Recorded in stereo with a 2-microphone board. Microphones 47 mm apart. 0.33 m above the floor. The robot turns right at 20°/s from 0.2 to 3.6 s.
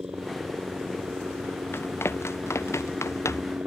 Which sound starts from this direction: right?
A helicopter, at 0.0 s.